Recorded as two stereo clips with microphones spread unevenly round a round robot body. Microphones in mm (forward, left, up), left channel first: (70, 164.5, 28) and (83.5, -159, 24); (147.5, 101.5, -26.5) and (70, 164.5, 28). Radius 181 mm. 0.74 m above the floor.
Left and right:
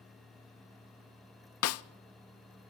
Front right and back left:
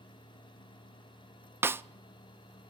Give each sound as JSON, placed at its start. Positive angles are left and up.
{"t": 1.6, "sound": "a snare drum", "azimuth_deg": 50, "distance_m": 0.5}